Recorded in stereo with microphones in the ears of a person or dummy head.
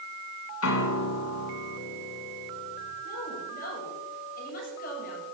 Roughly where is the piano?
Left.